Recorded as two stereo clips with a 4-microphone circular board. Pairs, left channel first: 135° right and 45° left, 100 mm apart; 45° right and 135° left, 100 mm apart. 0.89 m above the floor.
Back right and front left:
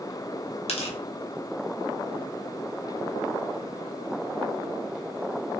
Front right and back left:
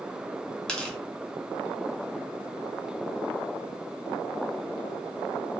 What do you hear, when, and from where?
0.7 s tearing paper: 125° right, 0.6 m